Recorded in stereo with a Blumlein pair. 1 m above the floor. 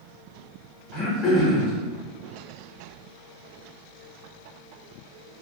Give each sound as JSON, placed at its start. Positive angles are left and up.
{"t": 0.9, "sound": "throat clearing", "azimuth_deg": 25, "distance_m": 1.1}